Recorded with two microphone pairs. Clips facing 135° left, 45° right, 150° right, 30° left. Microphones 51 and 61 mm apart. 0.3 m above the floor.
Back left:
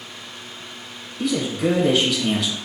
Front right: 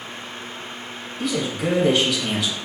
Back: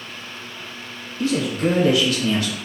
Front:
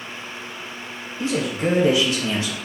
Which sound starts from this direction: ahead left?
A man speaking, at 1.2 s.